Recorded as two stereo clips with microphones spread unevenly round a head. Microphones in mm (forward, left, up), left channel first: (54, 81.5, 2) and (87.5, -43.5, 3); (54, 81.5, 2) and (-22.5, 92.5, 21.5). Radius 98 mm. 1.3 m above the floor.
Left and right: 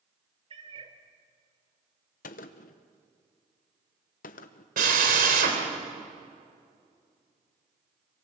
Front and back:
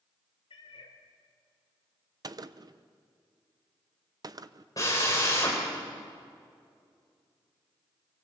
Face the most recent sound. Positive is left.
turn(degrees=-80)